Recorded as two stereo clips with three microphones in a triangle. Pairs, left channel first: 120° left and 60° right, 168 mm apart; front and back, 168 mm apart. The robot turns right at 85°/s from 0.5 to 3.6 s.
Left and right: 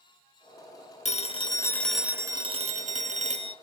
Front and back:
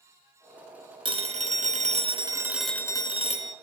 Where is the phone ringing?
135° left, 0.6 m; by 3.5 s 15° right, 0.6 m.